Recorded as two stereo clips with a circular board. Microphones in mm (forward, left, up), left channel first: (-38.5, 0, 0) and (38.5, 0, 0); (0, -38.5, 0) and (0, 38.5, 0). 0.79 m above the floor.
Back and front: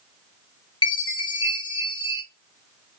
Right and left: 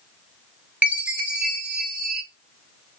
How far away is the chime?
About 1.7 m.